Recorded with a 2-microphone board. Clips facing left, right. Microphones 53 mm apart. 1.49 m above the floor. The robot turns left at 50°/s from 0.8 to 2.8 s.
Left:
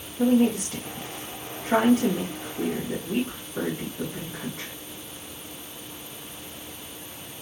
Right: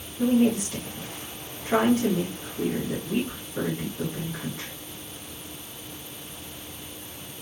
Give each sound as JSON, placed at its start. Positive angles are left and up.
{"t": 0.2, "sound": "a woman speaking", "side_deg": 50, "distance_m": 1.1}